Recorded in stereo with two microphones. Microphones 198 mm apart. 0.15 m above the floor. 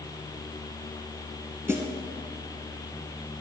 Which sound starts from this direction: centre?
A snare drum, at 1.7 s.